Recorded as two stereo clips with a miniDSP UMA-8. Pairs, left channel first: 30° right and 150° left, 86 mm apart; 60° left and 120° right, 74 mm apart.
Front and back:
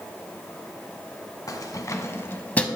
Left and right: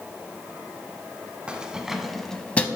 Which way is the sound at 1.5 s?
50° right.